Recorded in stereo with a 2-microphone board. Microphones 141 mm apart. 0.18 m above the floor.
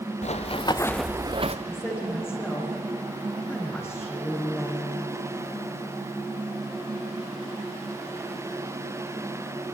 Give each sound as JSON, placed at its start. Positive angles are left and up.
{"t": 0.2, "sound": "running footsteps", "side_deg": 55, "distance_m": 1.2}
{"t": 1.7, "sound": "a woman speaking", "side_deg": 20, "distance_m": 9.0}